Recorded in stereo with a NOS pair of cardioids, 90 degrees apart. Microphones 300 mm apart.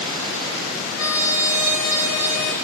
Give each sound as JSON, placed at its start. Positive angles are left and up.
{"t": 1.0, "sound": "a trumpet", "azimuth_deg": 60, "distance_m": 1.1}